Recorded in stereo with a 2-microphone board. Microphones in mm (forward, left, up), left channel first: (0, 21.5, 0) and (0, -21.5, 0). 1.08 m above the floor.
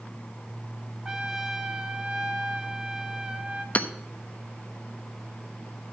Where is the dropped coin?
I don't hear a dropped coin.